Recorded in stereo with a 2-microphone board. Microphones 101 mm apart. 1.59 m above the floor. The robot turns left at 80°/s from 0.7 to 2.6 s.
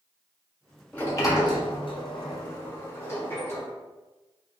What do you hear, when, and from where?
0.9 s a sliding door: 165° left, 0.9 m; by 3.7 s 30° left, 0.9 m